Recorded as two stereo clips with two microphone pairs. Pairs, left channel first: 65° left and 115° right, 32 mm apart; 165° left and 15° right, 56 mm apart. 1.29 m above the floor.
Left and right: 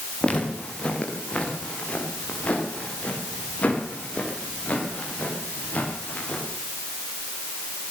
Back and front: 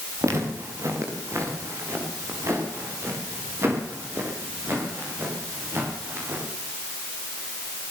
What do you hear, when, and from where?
0.2 s footsteps: 15° left, 8 m; by 6.4 s 30° left, 13.5 m